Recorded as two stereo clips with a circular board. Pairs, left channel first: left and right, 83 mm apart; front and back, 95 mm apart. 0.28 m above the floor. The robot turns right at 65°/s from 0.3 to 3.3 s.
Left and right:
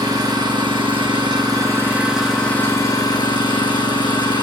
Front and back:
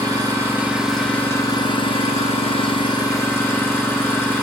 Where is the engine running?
125° right, 8.5 m; by 4.4 s 70° left, 8.5 m.